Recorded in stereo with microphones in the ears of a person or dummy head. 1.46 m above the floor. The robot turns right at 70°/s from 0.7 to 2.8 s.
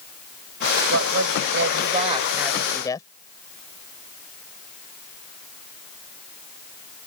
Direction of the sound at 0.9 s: 110° right.